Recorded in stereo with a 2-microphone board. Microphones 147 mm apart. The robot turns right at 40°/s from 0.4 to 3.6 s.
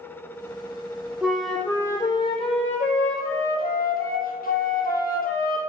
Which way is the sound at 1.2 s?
5° right.